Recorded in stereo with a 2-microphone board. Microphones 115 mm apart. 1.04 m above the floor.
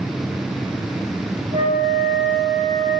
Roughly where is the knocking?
I don't hear knocking.